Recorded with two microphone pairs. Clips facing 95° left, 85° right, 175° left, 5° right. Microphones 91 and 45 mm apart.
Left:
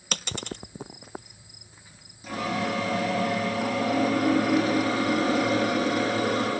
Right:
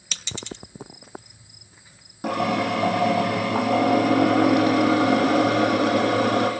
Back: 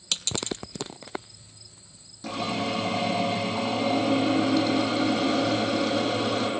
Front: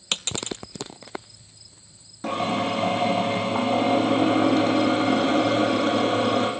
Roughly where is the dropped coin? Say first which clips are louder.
Left 2 dB, front 1 dB; ahead left.